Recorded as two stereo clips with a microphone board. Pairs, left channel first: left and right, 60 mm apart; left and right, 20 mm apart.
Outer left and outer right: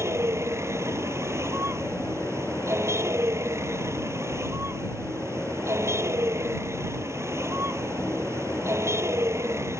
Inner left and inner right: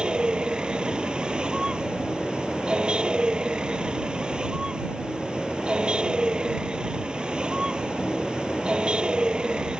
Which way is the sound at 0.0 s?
50° right (ahead or behind).